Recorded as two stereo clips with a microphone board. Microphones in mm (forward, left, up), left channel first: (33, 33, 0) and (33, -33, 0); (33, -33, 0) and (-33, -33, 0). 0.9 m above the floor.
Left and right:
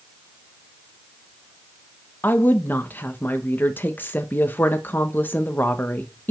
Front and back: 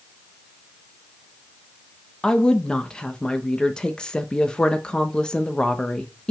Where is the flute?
I don't hear a flute.